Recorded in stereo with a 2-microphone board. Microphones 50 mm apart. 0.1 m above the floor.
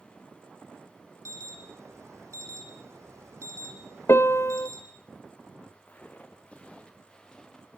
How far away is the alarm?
About 4 m.